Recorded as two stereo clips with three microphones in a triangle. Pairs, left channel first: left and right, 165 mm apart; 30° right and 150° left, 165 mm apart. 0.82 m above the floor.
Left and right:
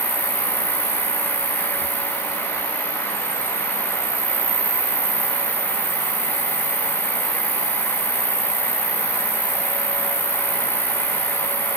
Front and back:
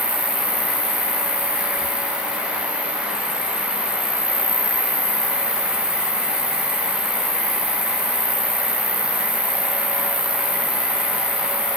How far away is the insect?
About 0.8 m.